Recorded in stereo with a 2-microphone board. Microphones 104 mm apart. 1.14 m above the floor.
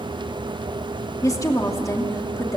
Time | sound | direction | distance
1.2 | a woman speaking | 35° left (ahead or behind) | 2.5 m